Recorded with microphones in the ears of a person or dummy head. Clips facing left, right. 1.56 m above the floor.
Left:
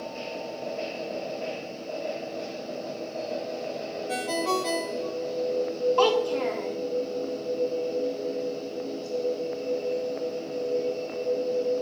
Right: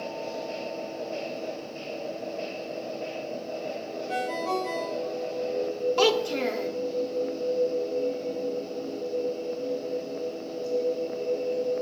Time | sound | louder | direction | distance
4.1 | a ringtone | left 1 dB | 60° left (ahead or behind) | 1.9 m
6.0 | a child speaking | even | 30° right (ahead or behind) | 1.5 m